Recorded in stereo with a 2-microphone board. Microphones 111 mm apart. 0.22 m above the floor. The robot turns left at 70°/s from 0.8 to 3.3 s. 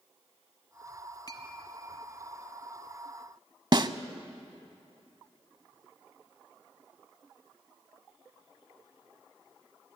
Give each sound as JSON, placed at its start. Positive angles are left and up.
{"t": 1.3, "sound": "a clink", "side_deg": 35, "distance_m": 1.2}
{"t": 3.7, "sound": "a snare drum", "side_deg": -45, "distance_m": 0.6}